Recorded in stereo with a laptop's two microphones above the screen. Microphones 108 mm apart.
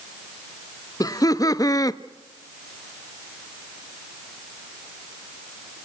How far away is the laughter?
About 0.8 m.